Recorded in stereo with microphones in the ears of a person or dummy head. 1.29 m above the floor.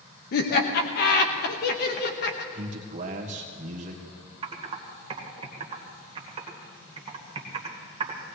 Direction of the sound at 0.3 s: 50° left (ahead or behind).